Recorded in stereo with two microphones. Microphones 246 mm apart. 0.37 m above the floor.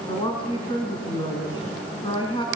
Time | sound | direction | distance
0.1 | a woman speaking | 20° left (ahead or behind) | 3 m